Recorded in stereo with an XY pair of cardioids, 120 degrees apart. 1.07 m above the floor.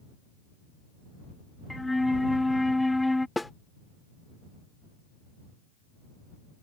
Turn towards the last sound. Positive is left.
turn(degrees=10)